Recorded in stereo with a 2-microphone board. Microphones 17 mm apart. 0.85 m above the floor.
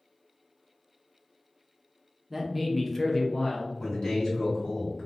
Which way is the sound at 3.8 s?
55° left (ahead or behind).